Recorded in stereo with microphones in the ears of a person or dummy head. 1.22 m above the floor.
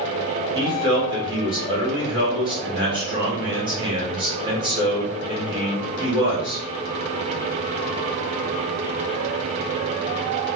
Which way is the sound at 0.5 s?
25° right (ahead or behind).